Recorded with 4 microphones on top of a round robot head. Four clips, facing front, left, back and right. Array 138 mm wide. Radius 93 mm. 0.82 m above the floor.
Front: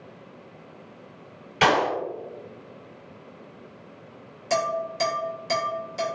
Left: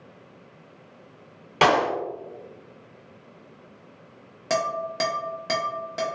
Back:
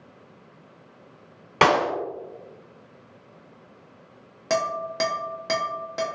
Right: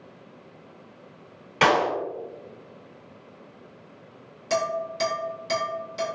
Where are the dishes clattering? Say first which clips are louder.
Even, even; 140° left, 1.3 m.